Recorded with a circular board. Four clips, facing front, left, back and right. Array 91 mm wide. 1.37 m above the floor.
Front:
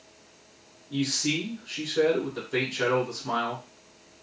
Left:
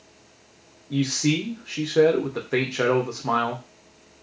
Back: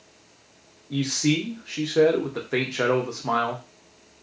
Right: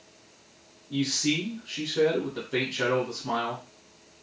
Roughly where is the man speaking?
Behind left.